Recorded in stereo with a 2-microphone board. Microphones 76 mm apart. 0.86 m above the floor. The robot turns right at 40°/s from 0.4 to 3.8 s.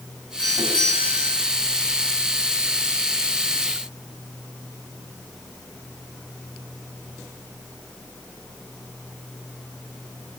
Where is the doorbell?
70° left, 6.5 m; by 1.4 s 110° left, 6.5 m.